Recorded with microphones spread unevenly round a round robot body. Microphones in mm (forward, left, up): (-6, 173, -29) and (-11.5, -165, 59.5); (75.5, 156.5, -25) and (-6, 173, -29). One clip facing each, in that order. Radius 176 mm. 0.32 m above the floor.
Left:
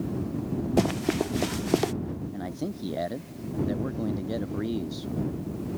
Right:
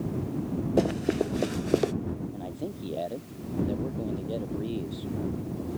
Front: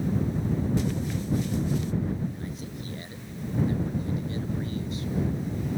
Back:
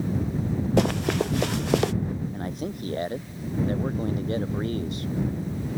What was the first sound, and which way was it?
Running footsteps, 155° left.